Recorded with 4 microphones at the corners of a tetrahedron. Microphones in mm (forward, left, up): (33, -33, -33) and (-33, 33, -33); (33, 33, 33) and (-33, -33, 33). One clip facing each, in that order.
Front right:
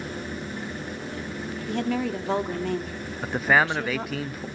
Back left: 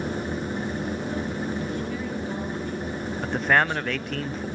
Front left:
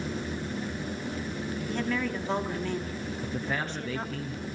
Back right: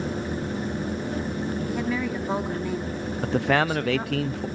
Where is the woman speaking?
50° right, 2.5 m.